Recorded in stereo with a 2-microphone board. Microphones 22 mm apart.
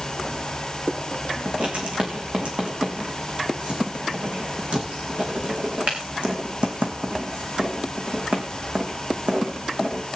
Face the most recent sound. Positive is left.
turn(degrees=-70)  # may be behind; listen again after turning